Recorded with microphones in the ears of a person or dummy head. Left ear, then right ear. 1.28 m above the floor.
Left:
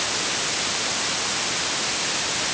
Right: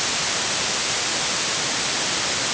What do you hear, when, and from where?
Only background noise.